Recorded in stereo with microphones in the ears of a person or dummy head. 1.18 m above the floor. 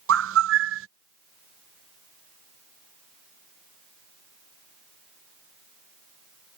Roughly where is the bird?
Right.